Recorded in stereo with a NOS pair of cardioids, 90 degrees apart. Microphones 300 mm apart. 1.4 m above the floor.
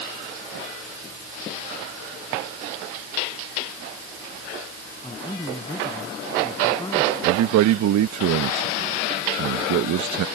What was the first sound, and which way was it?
A man speaking, 15° left.